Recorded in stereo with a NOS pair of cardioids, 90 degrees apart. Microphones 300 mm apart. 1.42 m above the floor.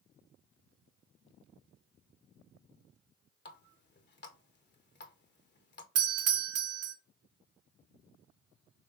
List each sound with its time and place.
3.5 s a running tap: 35° left, 1.2 m
6.0 s a doorbell: 55° right, 0.8 m